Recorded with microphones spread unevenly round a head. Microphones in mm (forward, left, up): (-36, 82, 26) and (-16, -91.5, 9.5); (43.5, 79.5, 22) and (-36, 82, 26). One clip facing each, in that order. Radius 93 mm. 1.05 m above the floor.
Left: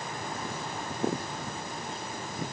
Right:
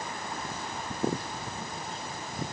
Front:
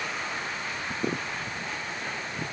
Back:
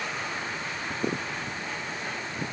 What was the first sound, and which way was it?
Only background noise.